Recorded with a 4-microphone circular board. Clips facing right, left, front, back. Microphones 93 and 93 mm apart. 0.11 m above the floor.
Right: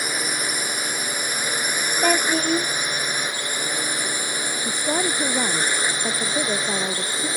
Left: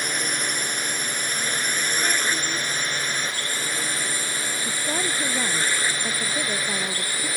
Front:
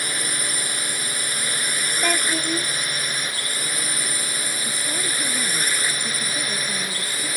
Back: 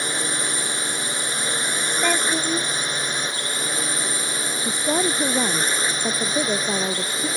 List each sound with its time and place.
0.0 s a drone: 160° right; by 7.4 s 140° right
2.0 s a child speaking: 100° right
4.7 s a woman speaking: 160° right